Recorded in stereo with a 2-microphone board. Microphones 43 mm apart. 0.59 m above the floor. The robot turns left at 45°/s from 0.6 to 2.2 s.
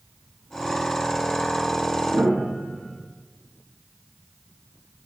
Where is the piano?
55° right (ahead or behind), 1.8 m; by 3.0 s 60° right (ahead or behind), 1.8 m.